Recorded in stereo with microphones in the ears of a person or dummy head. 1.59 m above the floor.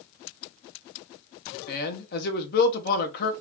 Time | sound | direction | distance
1.7 | a man speaking | 55° left (ahead or behind) | 1.1 m